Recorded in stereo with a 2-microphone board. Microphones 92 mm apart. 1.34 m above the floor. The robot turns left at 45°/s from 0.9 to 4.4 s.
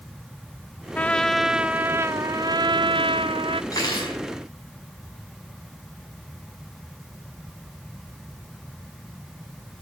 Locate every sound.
0.9 s a trumpet: 20° left, 0.5 m; by 3.6 s 100° right, 0.5 m
3.7 s cutlery clinking: 40° left (ahead or behind), 5.5 m; by 4.2 s 60° left (ahead or behind), 5.5 m